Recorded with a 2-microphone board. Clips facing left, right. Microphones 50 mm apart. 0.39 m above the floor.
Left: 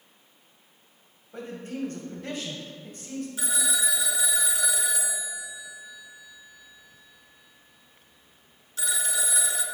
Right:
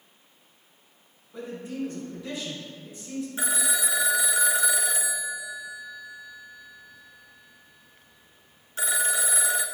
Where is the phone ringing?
35° right (ahead or behind), 0.5 m.